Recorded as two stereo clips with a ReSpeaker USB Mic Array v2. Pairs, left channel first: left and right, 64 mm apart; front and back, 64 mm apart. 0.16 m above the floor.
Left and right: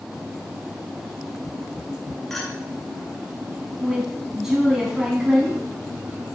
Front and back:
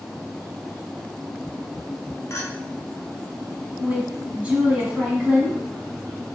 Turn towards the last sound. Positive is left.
turn(degrees=-165)